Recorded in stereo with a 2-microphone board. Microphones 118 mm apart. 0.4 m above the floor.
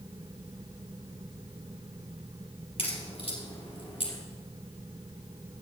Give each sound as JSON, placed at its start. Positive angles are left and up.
{"t": 2.8, "sound": "a crack", "side_deg": 55, "distance_m": 3.0}